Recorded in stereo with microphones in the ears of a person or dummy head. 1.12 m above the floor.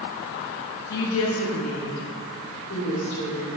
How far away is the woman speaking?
About 1.1 m.